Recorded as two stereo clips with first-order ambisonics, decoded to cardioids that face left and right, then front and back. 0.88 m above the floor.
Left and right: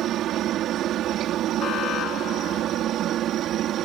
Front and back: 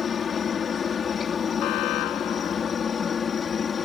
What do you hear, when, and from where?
0.0 s a helicopter: 55° right; by 3.9 s 60° right
1.6 s an alarm: 35° left